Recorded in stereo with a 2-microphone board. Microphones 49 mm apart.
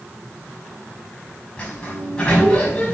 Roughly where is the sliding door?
Centre.